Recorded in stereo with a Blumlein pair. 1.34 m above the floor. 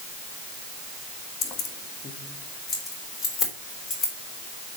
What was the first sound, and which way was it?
Keys jangling, 30° left.